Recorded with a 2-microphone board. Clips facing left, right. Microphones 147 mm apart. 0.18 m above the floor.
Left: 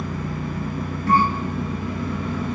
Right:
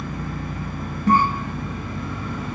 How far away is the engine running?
About 1.5 m.